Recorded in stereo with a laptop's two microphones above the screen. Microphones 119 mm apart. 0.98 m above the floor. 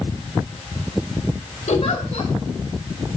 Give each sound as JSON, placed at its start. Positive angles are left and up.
{"t": 1.7, "sound": "a giggle", "side_deg": 65, "distance_m": 2.5}